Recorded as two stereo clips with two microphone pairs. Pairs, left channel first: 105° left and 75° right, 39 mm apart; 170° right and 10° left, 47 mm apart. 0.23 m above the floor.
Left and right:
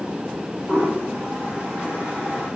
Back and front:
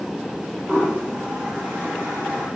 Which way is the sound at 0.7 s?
40° right.